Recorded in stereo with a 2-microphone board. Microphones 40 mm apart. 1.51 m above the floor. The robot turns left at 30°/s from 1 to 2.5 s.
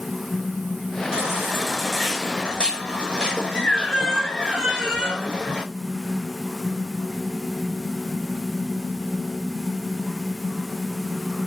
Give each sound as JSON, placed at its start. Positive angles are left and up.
{"t": 1.1, "sound": "a baby crying", "azimuth_deg": -160, "distance_m": 5.0}